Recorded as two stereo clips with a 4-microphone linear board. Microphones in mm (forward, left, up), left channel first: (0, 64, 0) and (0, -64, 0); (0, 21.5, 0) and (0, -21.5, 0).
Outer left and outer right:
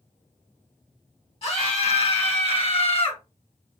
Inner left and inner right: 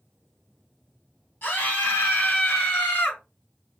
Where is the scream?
50° left (ahead or behind), 3.5 m; by 3.2 s 45° left (ahead or behind), 2.5 m.